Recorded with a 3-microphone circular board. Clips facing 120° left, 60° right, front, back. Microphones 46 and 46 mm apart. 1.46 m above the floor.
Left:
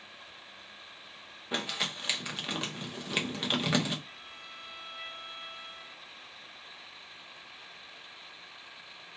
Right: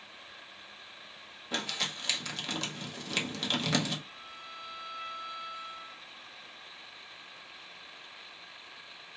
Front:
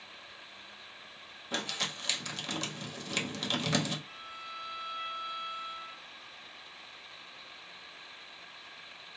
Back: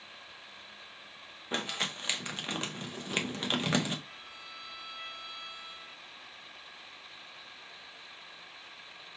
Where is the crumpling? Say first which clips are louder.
Left 1 dB, back 1 dB; 170° left, 0.7 m.